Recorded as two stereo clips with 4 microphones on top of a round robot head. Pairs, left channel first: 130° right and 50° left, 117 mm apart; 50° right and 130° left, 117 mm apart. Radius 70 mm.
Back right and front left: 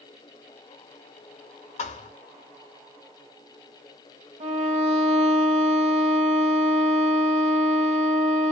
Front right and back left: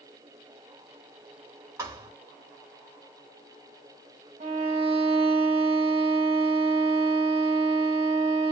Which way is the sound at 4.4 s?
90° left.